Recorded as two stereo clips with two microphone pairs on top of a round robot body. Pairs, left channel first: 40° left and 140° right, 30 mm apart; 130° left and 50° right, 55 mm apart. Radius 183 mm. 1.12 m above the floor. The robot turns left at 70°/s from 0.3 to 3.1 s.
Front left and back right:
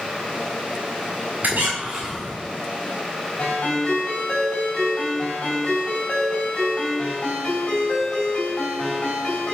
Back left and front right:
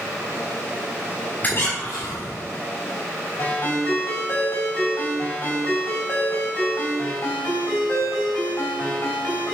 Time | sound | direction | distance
1.4 | a squeak | 165° right | 1.4 m
3.4 | a ringtone | 90° left | 4 m